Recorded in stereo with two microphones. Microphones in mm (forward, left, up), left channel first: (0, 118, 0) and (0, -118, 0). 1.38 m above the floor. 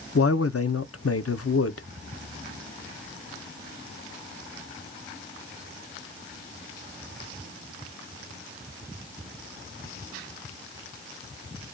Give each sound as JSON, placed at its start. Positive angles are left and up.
{"t": 0.1, "sound": "a man speaking", "side_deg": 75, "distance_m": 0.6}